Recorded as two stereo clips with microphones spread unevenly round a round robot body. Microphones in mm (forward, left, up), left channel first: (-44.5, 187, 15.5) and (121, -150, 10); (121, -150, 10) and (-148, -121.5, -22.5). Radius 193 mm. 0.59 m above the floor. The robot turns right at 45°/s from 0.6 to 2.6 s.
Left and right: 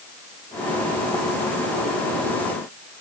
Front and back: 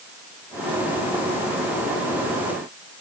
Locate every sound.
Only background noise.